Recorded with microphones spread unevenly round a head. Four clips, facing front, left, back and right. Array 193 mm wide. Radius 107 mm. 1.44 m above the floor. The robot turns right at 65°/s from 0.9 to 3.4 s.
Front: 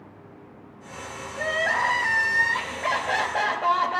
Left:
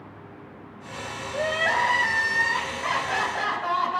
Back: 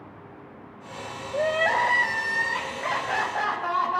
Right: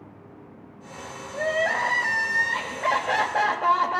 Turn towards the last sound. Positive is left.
turn(degrees=-75)